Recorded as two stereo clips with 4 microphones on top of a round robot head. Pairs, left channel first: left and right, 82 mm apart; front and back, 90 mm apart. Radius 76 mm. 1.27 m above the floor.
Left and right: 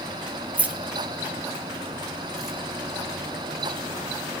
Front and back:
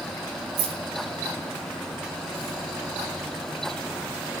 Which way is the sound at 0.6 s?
165° right.